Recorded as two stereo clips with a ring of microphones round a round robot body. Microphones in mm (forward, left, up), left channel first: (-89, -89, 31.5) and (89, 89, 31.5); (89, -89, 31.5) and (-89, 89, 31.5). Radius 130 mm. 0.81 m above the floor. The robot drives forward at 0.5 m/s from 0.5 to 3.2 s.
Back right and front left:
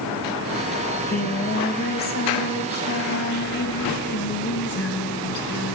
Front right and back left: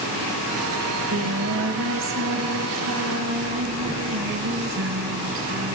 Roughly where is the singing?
Behind.